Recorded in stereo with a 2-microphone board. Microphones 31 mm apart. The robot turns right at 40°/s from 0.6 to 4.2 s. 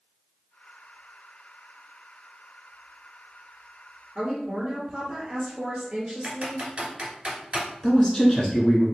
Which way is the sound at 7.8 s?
5° left (ahead or behind).